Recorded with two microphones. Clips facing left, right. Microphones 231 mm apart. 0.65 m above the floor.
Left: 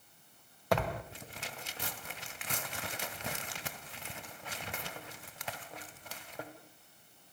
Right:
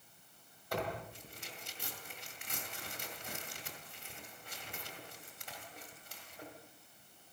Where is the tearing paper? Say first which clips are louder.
Left 6 dB; 75° left (ahead or behind), 2 m.